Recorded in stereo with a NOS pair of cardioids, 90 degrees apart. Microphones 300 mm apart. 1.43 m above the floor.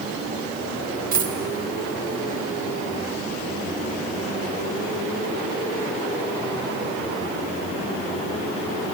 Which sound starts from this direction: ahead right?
A dropped coin, at 1.1 s.